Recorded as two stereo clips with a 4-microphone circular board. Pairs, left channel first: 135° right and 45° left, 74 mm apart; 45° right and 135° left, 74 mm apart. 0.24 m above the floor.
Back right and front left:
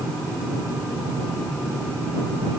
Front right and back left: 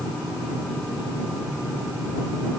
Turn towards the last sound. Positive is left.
No sound to turn to.